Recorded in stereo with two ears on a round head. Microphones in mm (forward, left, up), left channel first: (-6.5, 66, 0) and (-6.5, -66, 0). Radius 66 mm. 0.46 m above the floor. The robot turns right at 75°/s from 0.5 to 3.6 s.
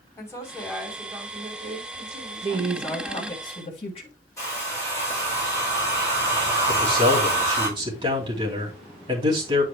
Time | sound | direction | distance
0.2 | a woman speaking | 160° left | 3 m
2.4 | a woman speaking | 40° right | 1.6 m
4.4 | a hair dryer | 20° left (ahead or behind) | 5.5 m
6.7 | a man speaking | 30° right (ahead or behind) | 3 m